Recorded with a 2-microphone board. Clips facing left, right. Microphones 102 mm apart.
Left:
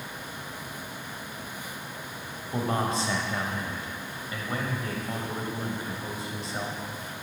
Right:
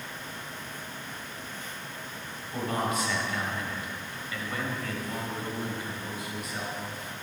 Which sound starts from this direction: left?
A man speaking, at 2.5 s.